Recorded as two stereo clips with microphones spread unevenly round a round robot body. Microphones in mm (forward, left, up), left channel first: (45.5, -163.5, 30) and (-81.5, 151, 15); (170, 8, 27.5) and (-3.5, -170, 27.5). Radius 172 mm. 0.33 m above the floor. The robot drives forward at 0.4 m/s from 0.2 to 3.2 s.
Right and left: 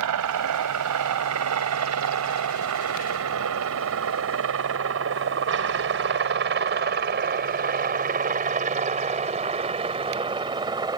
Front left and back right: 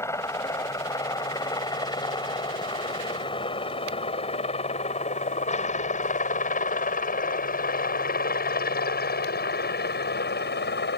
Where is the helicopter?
125° left; by 11.0 s 40° left.